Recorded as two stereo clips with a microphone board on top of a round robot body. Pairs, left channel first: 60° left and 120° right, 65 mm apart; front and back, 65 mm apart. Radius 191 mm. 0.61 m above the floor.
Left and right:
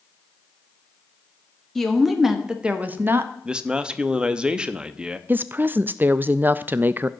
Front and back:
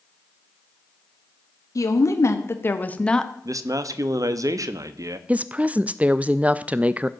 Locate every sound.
1.8 s a woman speaking: 25° right, 1.9 m; by 3.3 s 85° right, 1.3 m
3.5 s a man speaking: 165° left, 1.0 m
5.3 s a woman speaking: 135° right, 0.6 m